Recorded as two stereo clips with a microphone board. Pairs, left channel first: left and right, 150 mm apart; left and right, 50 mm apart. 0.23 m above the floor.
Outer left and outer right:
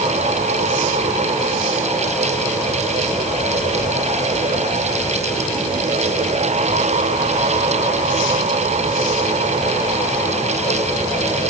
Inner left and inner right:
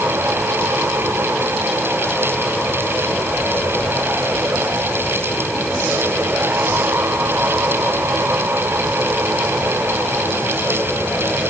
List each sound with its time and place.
Only background noise.